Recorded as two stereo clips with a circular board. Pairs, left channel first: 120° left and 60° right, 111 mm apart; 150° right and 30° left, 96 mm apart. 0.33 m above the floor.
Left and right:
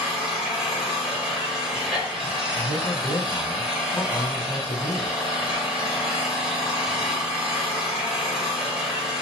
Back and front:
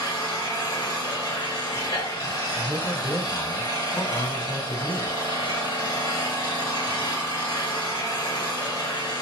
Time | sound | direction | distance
0.0 | an engine running | 140° right | 1.6 m
2.5 | a man speaking | 175° right | 1.9 m